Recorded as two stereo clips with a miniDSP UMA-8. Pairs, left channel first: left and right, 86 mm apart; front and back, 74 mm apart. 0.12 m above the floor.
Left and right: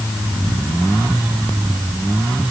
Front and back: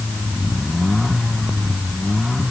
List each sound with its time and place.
Only background noise.